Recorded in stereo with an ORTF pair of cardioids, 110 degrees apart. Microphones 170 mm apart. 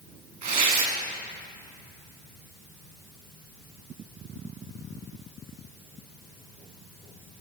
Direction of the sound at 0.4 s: 50° right.